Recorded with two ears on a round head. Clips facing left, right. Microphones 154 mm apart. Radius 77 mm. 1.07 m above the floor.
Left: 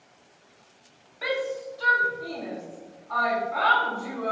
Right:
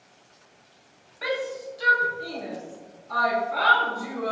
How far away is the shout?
About 0.7 m.